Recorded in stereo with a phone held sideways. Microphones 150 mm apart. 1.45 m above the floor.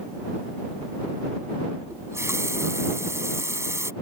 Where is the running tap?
20° right (ahead or behind).